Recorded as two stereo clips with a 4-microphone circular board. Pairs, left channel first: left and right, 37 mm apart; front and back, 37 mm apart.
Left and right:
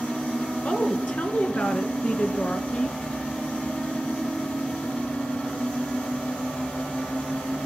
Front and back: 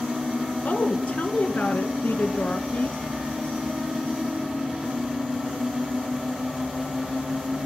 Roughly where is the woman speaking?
Ahead left.